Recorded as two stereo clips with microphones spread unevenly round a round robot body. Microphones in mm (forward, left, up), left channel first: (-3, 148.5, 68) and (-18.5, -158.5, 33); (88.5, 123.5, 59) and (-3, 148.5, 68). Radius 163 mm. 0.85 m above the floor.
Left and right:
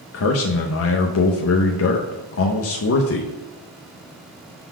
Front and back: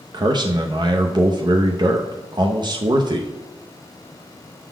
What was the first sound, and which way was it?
A man speaking, 130° left.